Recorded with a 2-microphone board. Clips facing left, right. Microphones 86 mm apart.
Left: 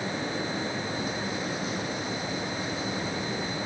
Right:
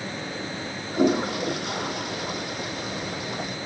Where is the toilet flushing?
80° right.